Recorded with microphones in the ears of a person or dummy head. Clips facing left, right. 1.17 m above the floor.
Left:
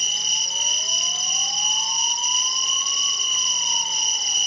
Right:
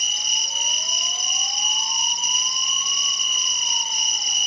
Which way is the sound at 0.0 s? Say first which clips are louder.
Even; 20° right (ahead or behind).